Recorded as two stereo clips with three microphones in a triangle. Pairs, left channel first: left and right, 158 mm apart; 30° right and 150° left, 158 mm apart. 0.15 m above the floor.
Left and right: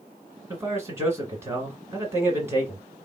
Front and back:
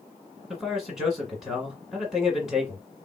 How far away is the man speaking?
About 1.5 m.